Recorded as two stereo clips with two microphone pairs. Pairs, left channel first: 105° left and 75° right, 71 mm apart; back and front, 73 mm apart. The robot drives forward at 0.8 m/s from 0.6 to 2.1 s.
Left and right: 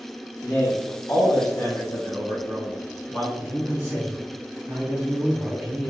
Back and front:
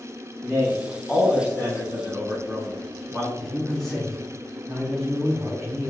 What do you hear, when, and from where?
0.4 s a man speaking: 85° left, 1.4 m; by 3.3 s 140° left, 1.8 m
3.4 s a man speaking: 100° right, 1.7 m